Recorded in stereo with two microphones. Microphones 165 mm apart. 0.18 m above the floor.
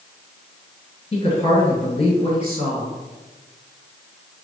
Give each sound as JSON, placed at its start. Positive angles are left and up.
{"t": 1.1, "sound": "a woman speaking", "side_deg": 35, "distance_m": 1.7}